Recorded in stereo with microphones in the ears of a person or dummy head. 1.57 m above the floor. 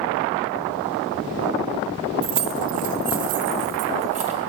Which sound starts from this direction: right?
Keys jangling, at 2.2 s.